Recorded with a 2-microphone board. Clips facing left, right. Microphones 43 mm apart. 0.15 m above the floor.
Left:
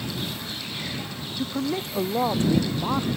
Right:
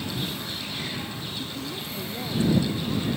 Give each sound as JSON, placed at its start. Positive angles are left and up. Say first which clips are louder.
{"t": 1.4, "sound": "a man speaking", "louder": "left 7 dB", "side_deg": 65}